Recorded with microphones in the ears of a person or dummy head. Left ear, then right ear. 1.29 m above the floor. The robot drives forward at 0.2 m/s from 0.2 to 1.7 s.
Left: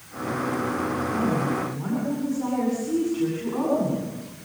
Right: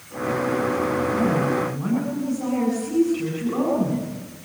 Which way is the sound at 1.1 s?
5° right (ahead or behind).